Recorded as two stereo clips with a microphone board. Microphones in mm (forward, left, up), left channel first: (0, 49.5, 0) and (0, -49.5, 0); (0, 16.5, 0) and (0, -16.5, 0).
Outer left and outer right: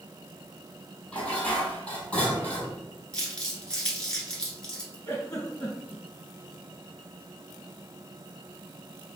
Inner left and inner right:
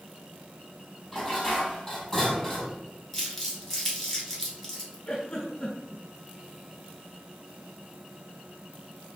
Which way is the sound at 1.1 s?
10° left (ahead or behind).